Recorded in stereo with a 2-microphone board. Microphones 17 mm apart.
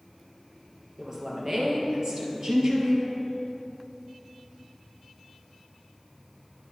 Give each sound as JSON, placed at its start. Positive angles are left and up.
{"t": 1.0, "sound": "a woman speaking", "side_deg": -25, "distance_m": 2.5}